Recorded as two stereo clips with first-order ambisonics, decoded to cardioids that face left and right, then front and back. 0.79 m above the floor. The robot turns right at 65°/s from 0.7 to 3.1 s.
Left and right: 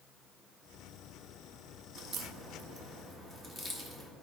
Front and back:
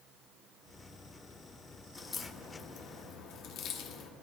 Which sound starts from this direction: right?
A crack, at 1.9 s.